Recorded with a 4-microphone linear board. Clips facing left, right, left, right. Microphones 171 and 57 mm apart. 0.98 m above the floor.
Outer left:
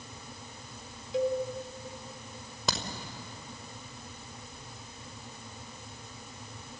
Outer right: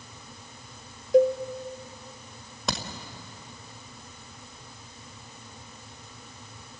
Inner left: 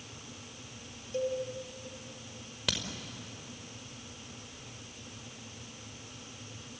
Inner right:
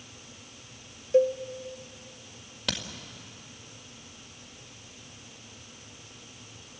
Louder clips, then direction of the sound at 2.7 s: Outer right 2 dB, inner right 2 dB; centre (ahead or behind).